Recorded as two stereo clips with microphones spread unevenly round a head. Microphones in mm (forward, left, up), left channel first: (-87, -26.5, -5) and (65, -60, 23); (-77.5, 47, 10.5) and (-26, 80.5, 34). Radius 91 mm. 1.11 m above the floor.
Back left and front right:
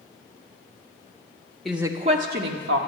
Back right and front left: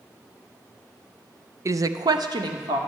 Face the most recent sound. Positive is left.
turn(degrees=15)